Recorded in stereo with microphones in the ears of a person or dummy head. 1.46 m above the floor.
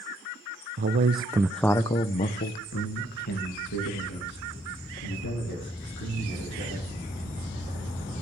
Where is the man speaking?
50° right (ahead or behind), 0.7 m; by 6.9 s 75° left (ahead or behind), 3.5 m.